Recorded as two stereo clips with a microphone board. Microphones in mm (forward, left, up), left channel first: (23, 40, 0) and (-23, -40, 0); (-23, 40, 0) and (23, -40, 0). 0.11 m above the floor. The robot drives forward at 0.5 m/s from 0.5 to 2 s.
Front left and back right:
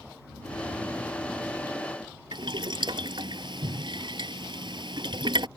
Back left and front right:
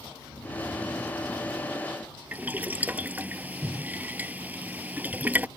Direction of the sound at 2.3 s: 130° right.